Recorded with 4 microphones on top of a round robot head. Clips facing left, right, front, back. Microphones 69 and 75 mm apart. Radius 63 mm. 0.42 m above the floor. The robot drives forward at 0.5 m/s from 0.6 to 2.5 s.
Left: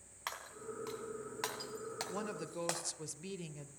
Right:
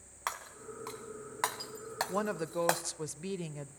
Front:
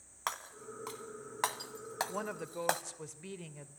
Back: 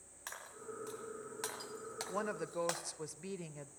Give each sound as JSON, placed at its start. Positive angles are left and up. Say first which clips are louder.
{"t": 0.3, "sound": "breaking glass", "louder": "right 5 dB, front 7 dB", "azimuth_deg": -30, "distance_m": 2.0}
{"t": 2.1, "sound": "a woman speaking", "louder": "right 10 dB, back 1 dB", "azimuth_deg": -95, "distance_m": 1.3}